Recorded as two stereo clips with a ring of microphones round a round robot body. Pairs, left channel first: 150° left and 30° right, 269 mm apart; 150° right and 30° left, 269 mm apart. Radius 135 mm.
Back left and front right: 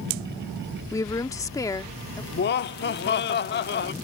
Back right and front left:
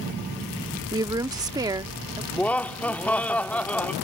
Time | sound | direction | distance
0.9 | a woman speaking | 90° left | ?
2.3 | laughter | 130° left | ?